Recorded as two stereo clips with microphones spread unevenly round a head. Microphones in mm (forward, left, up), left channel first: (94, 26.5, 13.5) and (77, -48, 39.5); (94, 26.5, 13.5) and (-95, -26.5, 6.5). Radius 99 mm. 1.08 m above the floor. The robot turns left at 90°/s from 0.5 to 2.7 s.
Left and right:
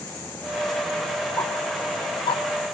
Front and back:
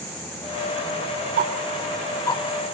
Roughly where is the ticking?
Behind.